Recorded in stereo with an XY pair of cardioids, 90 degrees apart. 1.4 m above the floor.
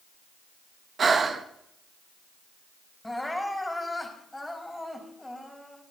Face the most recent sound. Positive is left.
turn(degrees=15)